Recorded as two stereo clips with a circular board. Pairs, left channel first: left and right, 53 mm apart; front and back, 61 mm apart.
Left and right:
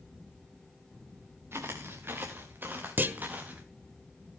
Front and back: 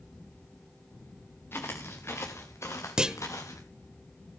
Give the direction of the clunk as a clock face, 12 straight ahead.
4 o'clock.